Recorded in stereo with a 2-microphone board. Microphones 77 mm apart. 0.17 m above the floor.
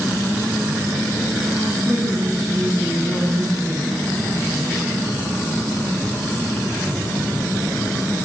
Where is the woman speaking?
60° right (ahead or behind), 4 m; by 4.1 s 50° right (ahead or behind), 3 m.